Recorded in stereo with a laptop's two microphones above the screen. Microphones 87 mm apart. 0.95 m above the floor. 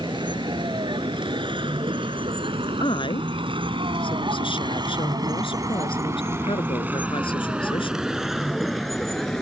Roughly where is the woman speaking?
Left.